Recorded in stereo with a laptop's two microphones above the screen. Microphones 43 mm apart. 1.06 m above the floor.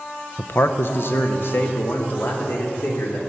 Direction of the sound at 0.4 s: 50° left (ahead or behind).